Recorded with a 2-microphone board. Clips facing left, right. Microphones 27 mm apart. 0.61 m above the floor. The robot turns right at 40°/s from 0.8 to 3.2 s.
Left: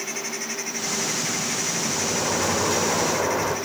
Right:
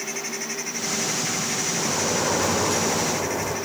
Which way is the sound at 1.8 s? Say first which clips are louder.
Right 3 dB; 30° right.